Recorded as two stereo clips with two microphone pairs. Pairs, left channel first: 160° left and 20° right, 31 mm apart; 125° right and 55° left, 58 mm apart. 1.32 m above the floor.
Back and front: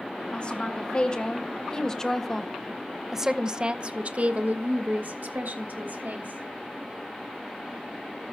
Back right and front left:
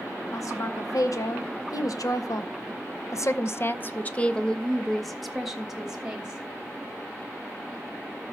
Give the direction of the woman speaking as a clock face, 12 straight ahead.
5 o'clock.